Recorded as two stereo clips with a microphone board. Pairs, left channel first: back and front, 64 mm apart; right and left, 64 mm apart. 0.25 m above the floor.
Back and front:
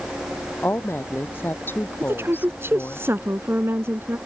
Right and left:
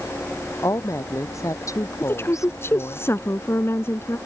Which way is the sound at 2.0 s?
45° right.